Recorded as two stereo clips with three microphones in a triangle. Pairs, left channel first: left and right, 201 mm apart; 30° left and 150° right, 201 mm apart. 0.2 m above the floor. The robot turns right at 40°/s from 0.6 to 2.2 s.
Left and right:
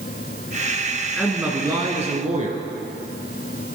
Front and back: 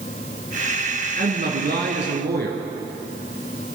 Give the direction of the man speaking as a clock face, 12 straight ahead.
6 o'clock.